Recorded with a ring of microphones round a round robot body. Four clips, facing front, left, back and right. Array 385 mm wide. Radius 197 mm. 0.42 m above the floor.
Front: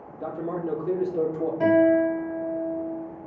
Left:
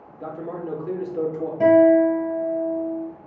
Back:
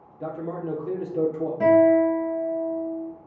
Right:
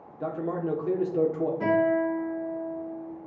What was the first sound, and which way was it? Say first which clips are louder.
A man speaking: right 2 dB, front 1 dB; 95° right.